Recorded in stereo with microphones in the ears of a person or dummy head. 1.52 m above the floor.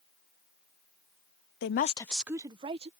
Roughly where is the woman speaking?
Left.